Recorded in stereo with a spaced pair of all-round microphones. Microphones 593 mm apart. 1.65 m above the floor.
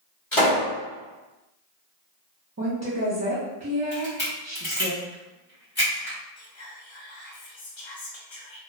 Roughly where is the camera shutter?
Centre.